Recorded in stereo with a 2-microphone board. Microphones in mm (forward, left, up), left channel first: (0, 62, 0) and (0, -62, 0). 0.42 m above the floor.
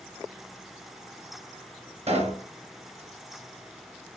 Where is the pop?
55° right (ahead or behind), 2 m.